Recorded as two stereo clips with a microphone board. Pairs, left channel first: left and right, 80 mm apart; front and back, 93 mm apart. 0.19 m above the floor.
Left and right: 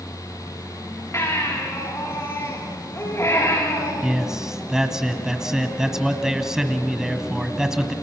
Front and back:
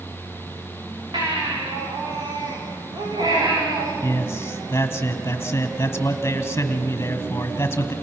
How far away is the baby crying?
About 9 m.